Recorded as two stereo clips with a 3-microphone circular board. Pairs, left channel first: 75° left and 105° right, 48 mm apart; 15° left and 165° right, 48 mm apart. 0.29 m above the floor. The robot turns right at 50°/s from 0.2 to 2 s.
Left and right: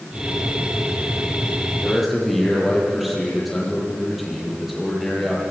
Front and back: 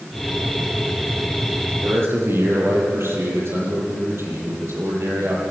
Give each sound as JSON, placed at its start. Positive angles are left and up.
{"t": 1.8, "sound": "a man speaking", "azimuth_deg": 155, "distance_m": 8.5}